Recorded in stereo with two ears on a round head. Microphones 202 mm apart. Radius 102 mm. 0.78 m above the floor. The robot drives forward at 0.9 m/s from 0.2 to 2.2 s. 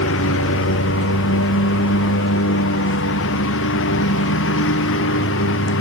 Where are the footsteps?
I don't hear footsteps.